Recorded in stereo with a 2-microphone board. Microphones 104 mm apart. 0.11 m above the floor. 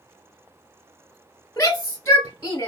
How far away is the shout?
About 1.8 m.